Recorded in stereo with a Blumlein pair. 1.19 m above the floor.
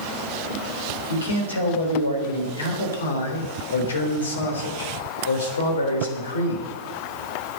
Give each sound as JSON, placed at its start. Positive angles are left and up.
{"t": 1.1, "sound": "a man speaking", "azimuth_deg": 70, "distance_m": 3.5}